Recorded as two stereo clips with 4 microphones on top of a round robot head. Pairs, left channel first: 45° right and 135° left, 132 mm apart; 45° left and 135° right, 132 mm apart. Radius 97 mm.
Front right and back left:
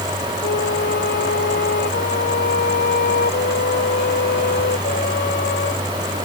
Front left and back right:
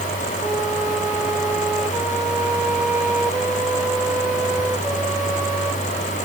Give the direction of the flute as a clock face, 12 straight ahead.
2 o'clock.